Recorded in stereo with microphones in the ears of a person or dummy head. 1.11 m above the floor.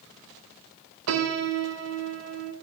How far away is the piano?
About 0.7 m.